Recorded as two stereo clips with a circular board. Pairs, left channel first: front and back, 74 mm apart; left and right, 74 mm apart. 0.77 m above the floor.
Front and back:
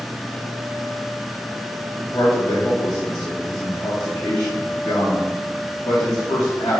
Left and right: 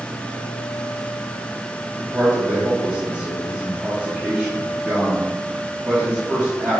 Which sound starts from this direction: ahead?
A man speaking, at 2.0 s.